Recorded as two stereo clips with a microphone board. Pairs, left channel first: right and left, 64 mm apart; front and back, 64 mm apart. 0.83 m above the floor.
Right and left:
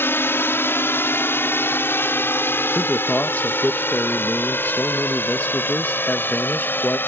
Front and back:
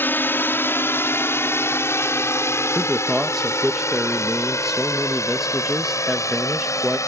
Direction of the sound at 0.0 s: 45° right.